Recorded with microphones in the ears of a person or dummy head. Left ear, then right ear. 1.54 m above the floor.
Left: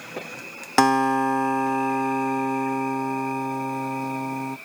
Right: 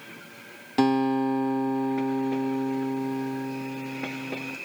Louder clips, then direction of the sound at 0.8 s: Left 5 dB; 50° left (ahead or behind).